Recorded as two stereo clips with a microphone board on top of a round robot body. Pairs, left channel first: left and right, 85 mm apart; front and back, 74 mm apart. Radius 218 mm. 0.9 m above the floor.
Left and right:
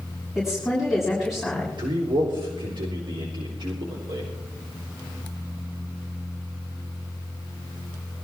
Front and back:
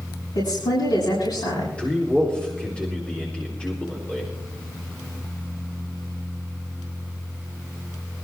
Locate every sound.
0.3 s a woman speaking: 5° right, 7.5 m
1.8 s a man speaking: 75° right, 4 m